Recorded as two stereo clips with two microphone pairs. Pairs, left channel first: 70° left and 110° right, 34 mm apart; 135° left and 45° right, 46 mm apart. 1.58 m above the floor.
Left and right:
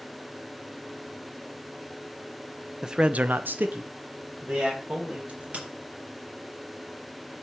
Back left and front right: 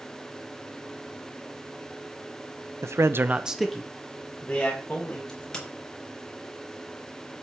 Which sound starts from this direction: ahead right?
A man speaking, at 2.8 s.